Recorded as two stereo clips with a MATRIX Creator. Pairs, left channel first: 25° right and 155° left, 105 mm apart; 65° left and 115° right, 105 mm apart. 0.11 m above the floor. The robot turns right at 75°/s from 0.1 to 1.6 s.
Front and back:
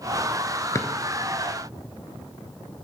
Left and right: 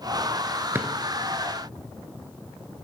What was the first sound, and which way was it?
A drawer, 60° right.